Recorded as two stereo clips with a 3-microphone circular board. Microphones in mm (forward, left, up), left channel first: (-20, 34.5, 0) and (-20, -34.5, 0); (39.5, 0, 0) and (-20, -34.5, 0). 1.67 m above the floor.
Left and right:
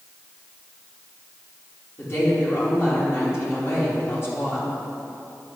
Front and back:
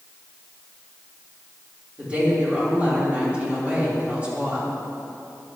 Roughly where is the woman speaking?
Behind left.